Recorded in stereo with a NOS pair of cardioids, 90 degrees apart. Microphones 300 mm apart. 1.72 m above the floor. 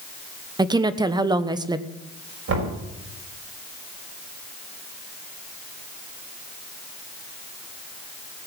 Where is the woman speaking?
15° right, 1.0 m.